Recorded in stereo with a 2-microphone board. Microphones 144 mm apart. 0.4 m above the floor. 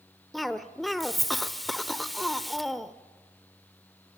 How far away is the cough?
About 0.9 m.